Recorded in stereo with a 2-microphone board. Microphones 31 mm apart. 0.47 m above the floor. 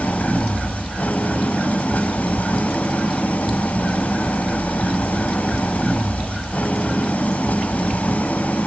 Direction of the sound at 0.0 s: 60° left (ahead or behind).